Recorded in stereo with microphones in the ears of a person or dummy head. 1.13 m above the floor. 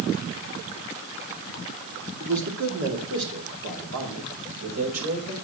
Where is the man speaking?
65° right (ahead or behind), 2.5 m; by 5.3 s 90° right, 5.5 m.